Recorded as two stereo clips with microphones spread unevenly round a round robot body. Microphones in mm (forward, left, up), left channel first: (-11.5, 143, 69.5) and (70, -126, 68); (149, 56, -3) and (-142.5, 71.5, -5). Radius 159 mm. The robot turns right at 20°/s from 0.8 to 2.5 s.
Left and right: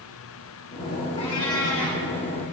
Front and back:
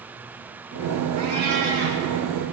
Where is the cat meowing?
175° left, 2 m; by 2.0 s 165° right, 2 m.